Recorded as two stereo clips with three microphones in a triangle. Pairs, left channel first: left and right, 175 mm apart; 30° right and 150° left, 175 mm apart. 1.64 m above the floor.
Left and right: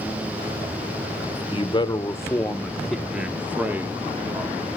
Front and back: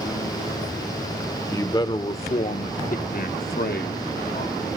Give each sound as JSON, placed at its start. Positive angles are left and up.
{"t": 1.5, "sound": "a man speaking", "azimuth_deg": 40, "distance_m": 0.9}